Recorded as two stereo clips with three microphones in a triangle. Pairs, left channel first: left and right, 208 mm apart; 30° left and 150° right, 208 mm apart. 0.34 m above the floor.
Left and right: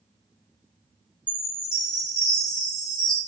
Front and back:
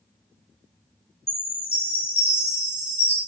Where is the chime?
25° right, 1.6 m.